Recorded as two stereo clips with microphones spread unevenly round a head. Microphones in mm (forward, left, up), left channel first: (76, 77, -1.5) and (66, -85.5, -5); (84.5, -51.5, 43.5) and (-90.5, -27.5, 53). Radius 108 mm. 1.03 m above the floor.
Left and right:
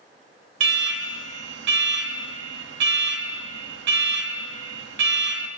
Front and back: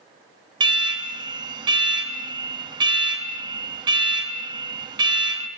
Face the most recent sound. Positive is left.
turn(degrees=-125)